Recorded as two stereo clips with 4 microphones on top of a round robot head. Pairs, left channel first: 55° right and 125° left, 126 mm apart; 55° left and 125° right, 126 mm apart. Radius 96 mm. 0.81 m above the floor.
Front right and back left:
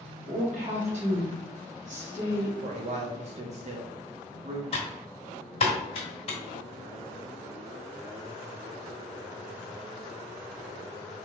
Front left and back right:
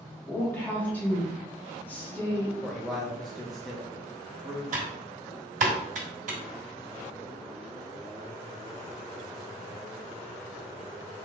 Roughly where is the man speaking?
Behind left.